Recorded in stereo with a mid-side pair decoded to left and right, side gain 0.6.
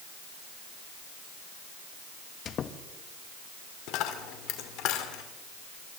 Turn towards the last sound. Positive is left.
turn(degrees=70)